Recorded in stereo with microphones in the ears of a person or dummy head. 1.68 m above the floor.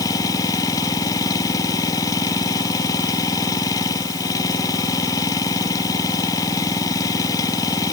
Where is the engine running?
20° left (ahead or behind).